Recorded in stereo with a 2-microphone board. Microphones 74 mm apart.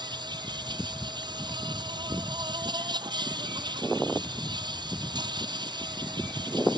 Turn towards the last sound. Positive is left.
turn(degrees=-80)